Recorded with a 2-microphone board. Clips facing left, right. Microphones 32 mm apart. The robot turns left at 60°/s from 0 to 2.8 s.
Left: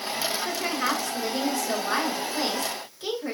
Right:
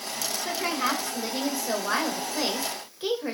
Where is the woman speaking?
10° left (ahead or behind), 0.8 m; by 3.4 s 20° right (ahead or behind), 0.8 m.